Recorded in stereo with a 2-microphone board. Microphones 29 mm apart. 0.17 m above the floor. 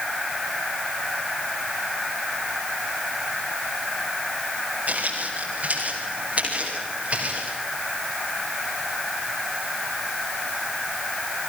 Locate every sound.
4.9 s footsteps: 50° right (ahead or behind), 10 m; by 7.6 s 40° right (ahead or behind), 13.5 m